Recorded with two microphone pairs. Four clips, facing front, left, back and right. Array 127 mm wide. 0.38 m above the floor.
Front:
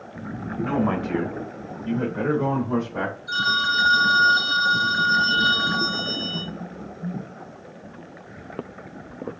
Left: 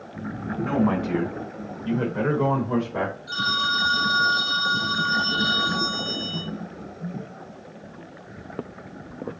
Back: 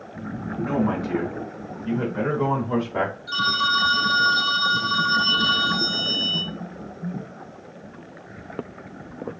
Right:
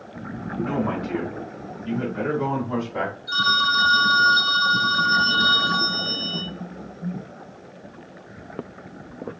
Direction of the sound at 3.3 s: 150° left.